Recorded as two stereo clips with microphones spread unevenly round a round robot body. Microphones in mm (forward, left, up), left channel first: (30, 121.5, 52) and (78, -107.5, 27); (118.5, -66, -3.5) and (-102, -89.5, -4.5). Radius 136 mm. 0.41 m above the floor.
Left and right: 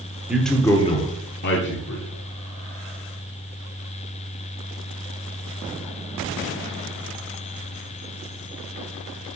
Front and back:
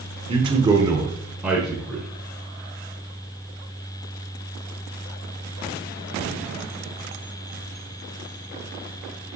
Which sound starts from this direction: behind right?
A man speaking, at 0.3 s.